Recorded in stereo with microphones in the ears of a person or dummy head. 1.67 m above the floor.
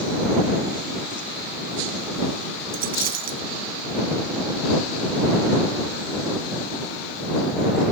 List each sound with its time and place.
2.7 s a dropped coin: 55° right (ahead or behind)